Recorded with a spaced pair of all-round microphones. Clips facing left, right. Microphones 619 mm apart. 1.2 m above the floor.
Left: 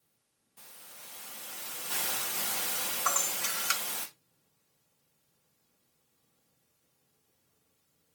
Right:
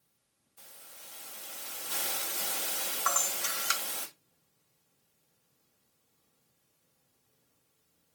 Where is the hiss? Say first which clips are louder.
Even; 90° left, 1.6 m.